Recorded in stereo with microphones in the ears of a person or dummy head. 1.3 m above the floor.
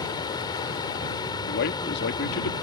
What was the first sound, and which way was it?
A fan, 25° left (ahead or behind).